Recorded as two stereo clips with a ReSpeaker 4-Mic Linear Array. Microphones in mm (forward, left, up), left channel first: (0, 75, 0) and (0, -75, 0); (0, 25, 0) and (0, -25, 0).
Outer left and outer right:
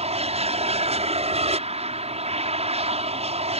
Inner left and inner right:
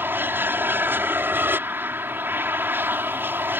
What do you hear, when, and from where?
0.0 s an aircraft: 45° right (ahead or behind)